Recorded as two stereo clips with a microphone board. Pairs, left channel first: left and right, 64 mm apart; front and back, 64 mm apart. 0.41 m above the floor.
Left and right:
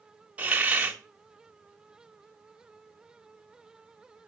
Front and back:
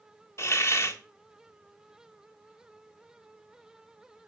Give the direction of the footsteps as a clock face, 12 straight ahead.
No footsteps in this recording.